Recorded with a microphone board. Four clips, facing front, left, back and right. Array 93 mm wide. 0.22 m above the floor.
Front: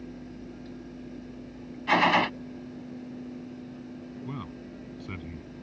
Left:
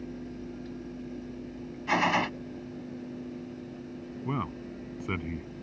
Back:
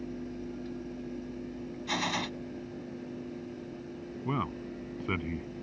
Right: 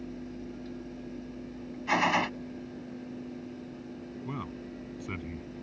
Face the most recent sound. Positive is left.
turn(degrees=145)